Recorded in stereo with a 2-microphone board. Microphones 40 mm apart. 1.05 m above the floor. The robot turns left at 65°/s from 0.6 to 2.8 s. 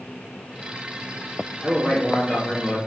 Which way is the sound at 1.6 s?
175° right.